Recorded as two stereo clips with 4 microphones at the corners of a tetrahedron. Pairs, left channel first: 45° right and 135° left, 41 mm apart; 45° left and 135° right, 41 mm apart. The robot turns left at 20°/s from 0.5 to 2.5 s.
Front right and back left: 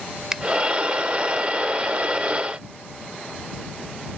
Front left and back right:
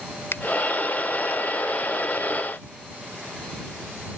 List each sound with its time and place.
0.3 s a finger snap: 60° left